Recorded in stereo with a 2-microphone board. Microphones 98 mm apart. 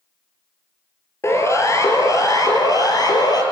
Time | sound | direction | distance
1.2 | a siren | 30° left (ahead or behind) | 3.5 m